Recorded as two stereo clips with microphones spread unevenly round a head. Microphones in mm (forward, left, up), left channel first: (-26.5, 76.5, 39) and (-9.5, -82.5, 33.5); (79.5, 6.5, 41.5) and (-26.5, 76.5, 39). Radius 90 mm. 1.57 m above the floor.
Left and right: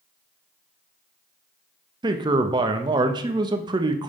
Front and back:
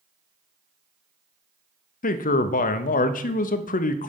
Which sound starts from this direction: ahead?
A man speaking, at 2.0 s.